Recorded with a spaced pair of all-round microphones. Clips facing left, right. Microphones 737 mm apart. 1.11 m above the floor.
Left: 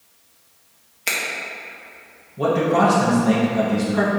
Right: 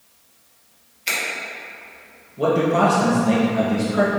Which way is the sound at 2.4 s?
30° left (ahead or behind).